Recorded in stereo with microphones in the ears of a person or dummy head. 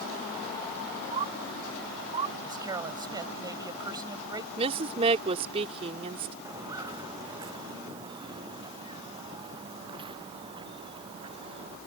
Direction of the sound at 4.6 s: 35° right (ahead or behind).